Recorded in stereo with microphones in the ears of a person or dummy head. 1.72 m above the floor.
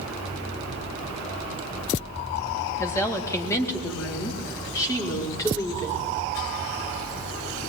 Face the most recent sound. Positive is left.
turn(degrees=20)  # may be behind; listen again after turning